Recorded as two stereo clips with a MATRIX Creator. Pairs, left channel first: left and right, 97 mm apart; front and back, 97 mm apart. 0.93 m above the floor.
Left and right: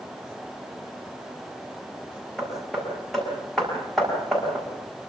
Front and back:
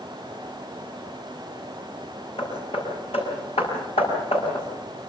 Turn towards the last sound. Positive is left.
turn(degrees=5)